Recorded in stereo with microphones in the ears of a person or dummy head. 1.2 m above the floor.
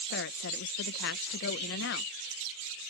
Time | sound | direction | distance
0.1 | a woman speaking | 65° left (ahead or behind) | ?